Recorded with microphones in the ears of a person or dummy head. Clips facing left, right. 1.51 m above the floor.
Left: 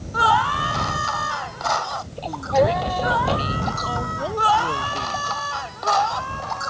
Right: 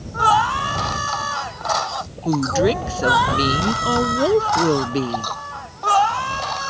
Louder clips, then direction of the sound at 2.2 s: Right 2 dB; 65° right (ahead or behind).